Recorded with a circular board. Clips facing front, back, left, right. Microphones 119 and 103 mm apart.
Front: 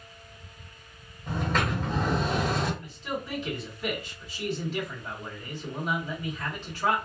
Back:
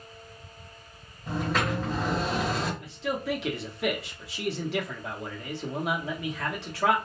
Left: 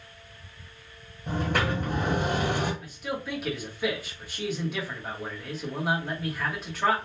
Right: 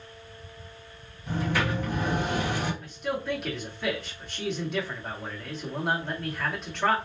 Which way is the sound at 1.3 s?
95° left.